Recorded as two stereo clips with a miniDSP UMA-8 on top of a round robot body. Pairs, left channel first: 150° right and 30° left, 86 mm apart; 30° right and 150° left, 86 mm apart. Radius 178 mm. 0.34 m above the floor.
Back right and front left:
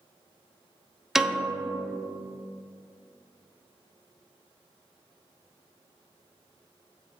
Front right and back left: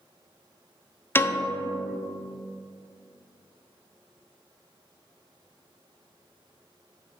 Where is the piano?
50° right, 0.6 m.